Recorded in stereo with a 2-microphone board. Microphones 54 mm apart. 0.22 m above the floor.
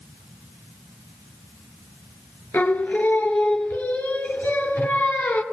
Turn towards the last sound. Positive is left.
turn(degrees=30)  # may be behind; listen again after turning